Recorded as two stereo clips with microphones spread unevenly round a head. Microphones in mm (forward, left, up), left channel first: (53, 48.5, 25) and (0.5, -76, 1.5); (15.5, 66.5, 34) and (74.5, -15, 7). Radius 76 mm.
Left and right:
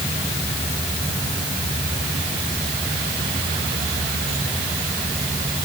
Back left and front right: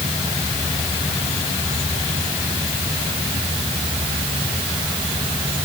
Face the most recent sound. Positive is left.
No sound to turn to.